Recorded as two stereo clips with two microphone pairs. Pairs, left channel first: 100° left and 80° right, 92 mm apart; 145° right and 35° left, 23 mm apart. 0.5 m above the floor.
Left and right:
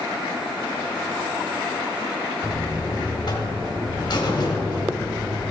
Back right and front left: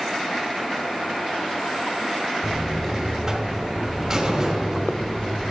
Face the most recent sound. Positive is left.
turn(degrees=105)